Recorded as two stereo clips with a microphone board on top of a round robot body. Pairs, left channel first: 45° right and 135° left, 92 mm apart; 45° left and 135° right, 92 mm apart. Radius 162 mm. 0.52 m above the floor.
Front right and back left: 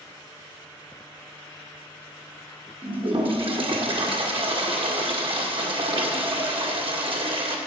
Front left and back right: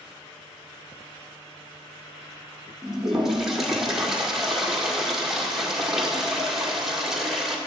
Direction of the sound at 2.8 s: 140° left.